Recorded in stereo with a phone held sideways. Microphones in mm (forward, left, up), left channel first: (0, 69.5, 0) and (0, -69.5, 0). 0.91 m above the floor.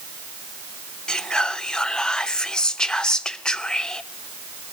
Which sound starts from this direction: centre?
Whispering, at 1.1 s.